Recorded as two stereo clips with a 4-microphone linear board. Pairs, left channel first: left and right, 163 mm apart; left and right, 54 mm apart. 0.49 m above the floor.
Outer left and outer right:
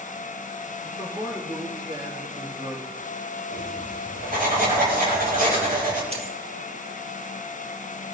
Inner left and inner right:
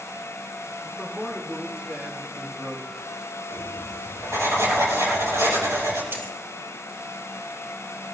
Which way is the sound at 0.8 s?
20° right (ahead or behind).